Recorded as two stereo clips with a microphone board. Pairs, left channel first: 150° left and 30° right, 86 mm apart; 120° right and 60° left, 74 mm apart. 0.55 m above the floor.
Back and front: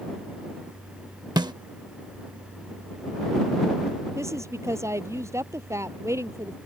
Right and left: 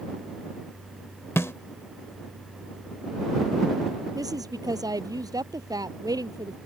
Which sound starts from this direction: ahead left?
A woman speaking, at 4.2 s.